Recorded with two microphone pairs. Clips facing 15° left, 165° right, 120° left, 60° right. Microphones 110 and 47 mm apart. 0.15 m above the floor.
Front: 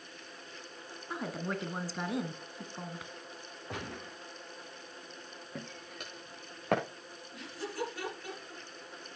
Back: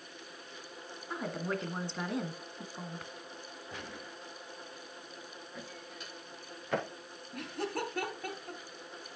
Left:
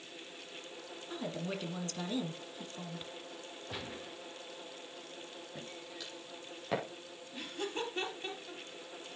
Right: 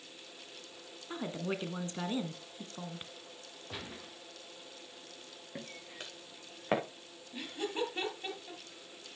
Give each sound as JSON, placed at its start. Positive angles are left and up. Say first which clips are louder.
{"t": 1.1, "sound": "a woman speaking", "louder": "back 1 dB, right 2 dB", "azimuth_deg": -70, "distance_m": 1.3}
{"t": 3.7, "sound": "a gunshot", "louder": "front 5 dB, left 1 dB", "azimuth_deg": 30, "distance_m": 4.5}
{"t": 5.5, "sound": "footsteps", "louder": "front 3 dB, right 3 dB", "azimuth_deg": -20, "distance_m": 5.5}
{"t": 7.3, "sound": "laughter", "louder": "back 3 dB, right 2 dB", "azimuth_deg": -145, "distance_m": 4.0}